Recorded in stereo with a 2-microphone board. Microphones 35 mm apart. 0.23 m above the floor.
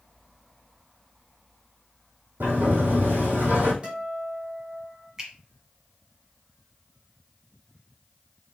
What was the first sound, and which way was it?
A sliding door, 80° right.